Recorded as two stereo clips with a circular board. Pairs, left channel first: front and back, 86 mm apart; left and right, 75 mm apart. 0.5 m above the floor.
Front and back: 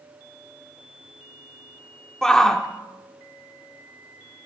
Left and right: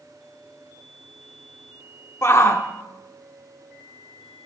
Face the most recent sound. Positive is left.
turn(degrees=80)